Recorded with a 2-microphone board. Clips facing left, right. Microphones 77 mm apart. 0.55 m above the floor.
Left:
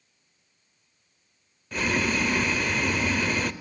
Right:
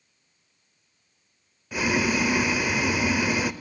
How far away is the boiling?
About 0.6 m.